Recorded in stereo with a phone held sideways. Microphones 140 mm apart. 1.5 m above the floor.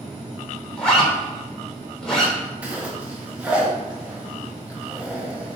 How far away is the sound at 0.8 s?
About 3 m.